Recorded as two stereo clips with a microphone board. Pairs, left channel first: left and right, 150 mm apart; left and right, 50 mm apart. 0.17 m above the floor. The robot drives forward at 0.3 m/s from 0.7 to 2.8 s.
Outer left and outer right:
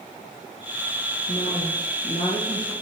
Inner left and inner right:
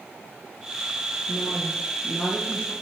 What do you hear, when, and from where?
1.3 s a woman speaking: 35° left (ahead or behind), 4.5 m